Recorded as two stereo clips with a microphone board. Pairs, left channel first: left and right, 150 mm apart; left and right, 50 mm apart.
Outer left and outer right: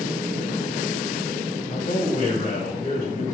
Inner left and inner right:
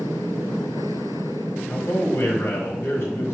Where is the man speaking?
50° left (ahead or behind), 1.4 m.